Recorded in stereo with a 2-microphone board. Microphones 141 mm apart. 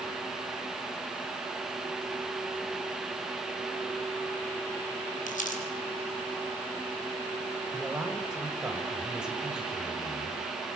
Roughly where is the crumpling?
Left.